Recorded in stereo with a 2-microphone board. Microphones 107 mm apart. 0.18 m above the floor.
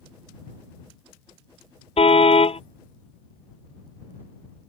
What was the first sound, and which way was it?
A car horn, 75° left (ahead or behind).